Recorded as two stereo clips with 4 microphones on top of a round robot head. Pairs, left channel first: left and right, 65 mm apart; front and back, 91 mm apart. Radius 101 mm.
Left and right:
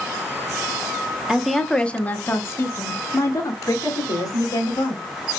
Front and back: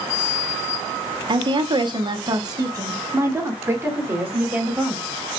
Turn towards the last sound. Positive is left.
turn(degrees=105)